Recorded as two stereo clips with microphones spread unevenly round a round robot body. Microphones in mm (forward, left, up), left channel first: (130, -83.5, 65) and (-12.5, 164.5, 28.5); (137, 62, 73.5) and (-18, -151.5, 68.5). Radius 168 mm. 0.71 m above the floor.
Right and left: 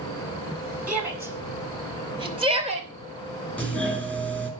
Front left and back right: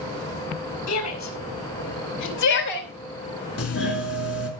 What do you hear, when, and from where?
0.9 s a shout: 35° left, 6 m; by 4.0 s 65° left, 5 m
3.6 s a doorbell: 30° left, 3.5 m